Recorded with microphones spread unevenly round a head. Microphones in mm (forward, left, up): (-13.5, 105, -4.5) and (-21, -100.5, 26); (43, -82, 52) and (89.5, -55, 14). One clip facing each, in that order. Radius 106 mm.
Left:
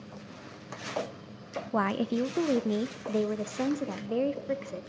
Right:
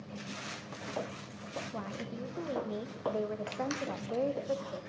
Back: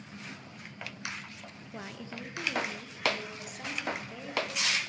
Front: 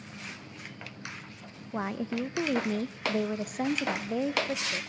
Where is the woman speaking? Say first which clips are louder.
Left 16 dB, front 11 dB; 85° left, 0.6 m; by 4.8 s 30° left, 2.0 m.